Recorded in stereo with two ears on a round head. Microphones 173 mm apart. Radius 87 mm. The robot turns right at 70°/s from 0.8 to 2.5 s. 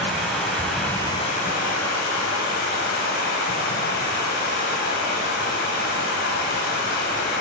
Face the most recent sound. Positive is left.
turn(degrees=120)